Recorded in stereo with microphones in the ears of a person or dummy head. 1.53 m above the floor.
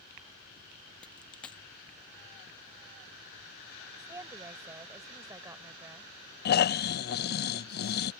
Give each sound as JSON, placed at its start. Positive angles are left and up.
{"t": 1.0, "sound": "a dropped coin", "side_deg": 5}
{"t": 4.0, "sound": "a woman speaking", "side_deg": -20}
{"t": 6.5, "sound": "snoring", "side_deg": 45}